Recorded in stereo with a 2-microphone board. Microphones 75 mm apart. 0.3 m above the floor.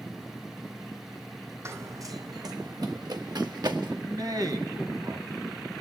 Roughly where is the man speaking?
Right.